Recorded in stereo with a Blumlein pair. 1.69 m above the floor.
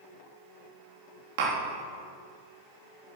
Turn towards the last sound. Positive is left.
turn(degrees=-50)